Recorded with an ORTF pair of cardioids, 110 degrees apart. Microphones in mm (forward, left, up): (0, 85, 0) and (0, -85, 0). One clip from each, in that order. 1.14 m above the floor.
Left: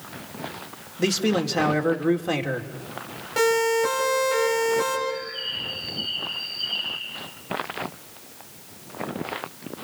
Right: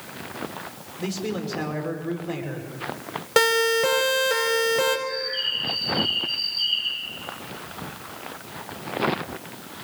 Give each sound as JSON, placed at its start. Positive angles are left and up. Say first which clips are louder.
{"t": 1.0, "sound": "a man speaking", "louder": "left 7 dB", "azimuth_deg": 50, "distance_m": 2.5}
{"t": 3.4, "sound": "a siren", "louder": "right 1 dB", "azimuth_deg": -60, "distance_m": 6.5}
{"t": 5.1, "sound": "a bird", "louder": "right 3 dB", "azimuth_deg": -60, "distance_m": 7.0}